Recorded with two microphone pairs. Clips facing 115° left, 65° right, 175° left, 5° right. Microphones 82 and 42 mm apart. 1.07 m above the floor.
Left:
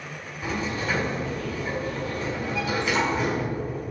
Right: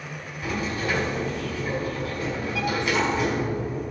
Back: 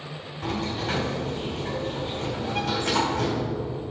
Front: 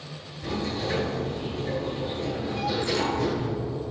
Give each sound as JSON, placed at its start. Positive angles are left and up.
{"t": 0.4, "sound": "a sliding door", "azimuth_deg": -155, "distance_m": 3.5}